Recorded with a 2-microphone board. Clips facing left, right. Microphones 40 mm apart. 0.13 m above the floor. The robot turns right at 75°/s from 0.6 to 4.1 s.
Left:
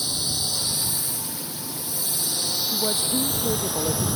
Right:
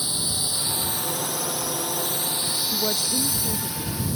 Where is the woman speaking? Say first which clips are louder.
Left 1 dB; 20° right; by 4.1 s 85° left.